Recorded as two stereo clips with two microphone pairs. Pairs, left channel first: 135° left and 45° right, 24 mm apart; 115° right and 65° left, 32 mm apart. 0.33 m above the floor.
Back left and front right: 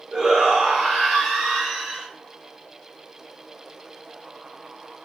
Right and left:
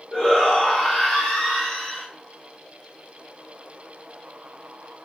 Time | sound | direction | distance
0.1 | a shout | 85° right | 1.2 m